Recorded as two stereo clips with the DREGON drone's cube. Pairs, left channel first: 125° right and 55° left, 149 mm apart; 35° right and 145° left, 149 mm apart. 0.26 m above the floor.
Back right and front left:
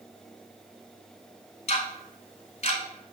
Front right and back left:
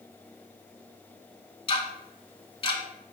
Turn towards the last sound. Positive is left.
turn(degrees=-85)